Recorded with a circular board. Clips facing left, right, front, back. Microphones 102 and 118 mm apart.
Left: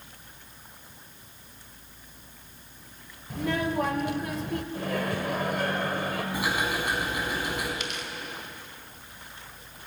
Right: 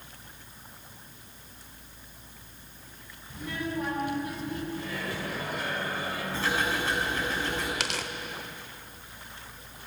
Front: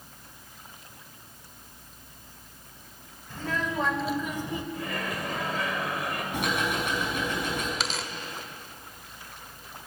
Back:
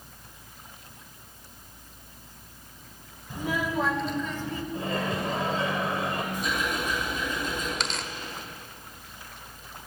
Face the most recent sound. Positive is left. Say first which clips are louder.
# right 2 dB, even
turn(degrees=-85)